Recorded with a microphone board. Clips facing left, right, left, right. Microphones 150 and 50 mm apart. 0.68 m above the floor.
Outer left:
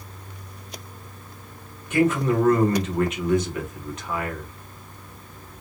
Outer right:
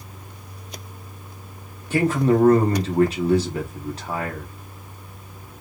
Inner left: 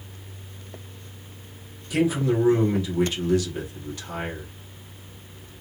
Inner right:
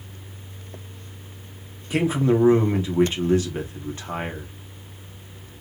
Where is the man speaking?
35° right (ahead or behind), 1.7 m.